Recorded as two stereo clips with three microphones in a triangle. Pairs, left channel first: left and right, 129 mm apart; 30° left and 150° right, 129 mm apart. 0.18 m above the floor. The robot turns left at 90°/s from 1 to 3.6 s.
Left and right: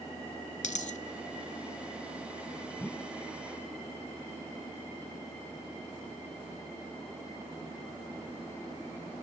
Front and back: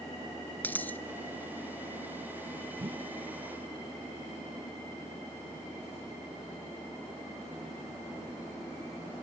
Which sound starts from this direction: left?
A dropped coin, at 0.6 s.